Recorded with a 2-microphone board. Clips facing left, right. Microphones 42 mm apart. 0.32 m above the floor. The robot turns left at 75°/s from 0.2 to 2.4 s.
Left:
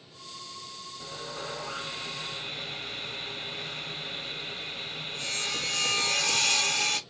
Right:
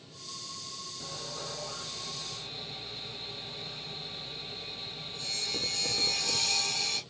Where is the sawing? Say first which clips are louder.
Left 4 dB; 170° left, 0.6 m; by 7.0 s 65° left, 0.6 m.